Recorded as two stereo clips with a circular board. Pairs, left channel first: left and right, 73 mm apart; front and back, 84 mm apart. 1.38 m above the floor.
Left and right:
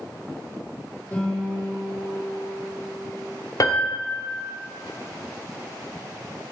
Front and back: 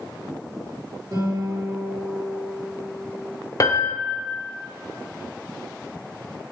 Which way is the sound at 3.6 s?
50° left.